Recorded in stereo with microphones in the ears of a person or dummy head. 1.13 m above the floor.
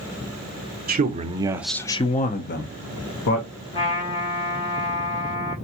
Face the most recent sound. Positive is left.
turn(degrees=40)  # may be behind; listen again after turning